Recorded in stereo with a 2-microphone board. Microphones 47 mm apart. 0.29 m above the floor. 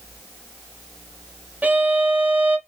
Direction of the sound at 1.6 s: 35° right (ahead or behind).